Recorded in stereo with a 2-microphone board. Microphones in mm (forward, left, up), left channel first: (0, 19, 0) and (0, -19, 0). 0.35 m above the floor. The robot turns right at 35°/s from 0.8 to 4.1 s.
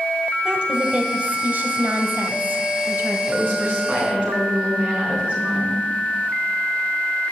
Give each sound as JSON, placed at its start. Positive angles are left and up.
{"t": 0.5, "sound": "a woman speaking", "azimuth_deg": -150, "distance_m": 1.5}
{"t": 3.3, "sound": "a woman speaking", "side_deg": -65, "distance_m": 4.5}